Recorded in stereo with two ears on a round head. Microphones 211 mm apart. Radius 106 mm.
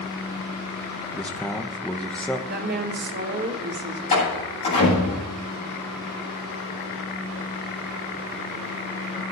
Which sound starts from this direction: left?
A door slam, at 4.1 s.